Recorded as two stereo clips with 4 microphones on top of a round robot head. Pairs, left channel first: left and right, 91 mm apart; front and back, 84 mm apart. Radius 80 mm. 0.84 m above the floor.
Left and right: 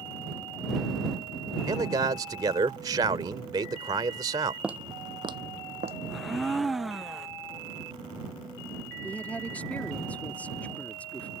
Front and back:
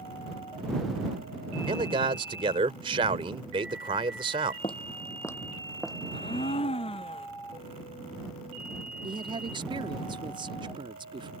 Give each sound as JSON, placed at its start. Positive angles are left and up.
{"t": 1.7, "sound": "a man speaking", "azimuth_deg": -145}
{"t": 4.6, "sound": "footsteps", "azimuth_deg": -15}
{"t": 6.1, "sound": "a blender", "azimuth_deg": 0}
{"t": 9.0, "sound": "a woman speaking", "azimuth_deg": 165}